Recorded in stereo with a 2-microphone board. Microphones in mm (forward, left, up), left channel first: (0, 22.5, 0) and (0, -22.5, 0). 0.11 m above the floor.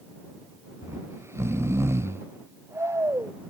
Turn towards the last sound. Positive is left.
turn(degrees=-75)  # may be behind; listen again after turning